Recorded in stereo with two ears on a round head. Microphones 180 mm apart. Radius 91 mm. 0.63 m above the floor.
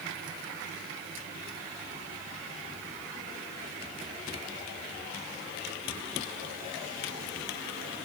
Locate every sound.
Only background noise.